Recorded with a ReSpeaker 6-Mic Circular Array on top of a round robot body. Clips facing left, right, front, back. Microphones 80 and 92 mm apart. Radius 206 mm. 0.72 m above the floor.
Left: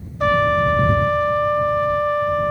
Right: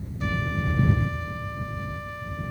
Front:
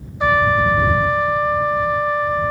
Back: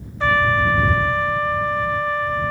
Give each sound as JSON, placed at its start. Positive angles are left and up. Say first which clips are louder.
{"t": 0.2, "sound": "a trumpet", "louder": "left 14 dB, front 2 dB", "azimuth_deg": 75}